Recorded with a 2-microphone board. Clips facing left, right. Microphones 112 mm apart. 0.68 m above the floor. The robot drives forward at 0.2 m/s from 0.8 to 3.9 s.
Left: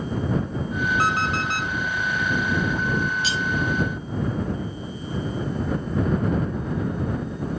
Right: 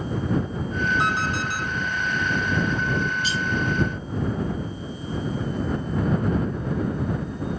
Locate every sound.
1.0 s an alarm clock: 55° left (ahead or behind), 0.9 m; by 1.7 s 65° left (ahead or behind), 0.8 m
3.2 s cutlery clinking: 85° left, 0.9 m